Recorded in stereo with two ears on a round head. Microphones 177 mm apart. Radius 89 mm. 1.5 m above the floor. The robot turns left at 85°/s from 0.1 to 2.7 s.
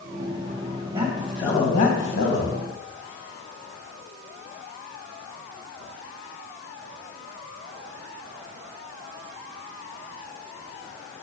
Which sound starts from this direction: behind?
A man speaking, at 0.9 s.